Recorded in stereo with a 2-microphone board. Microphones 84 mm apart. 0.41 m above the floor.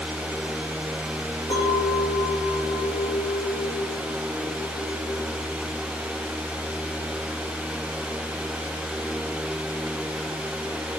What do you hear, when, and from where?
1.5 s a clink: 85° left, 8.5 m